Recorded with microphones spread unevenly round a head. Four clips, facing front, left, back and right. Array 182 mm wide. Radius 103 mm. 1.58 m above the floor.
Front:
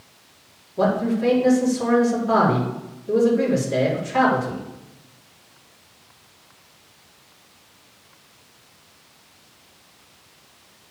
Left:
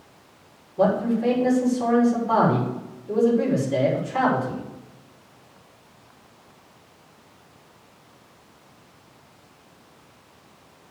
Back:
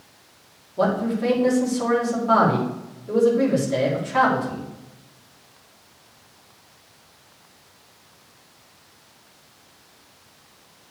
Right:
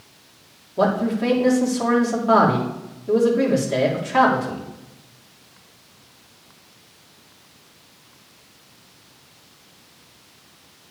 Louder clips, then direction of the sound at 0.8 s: Right 1 dB, front 1 dB; 90° right.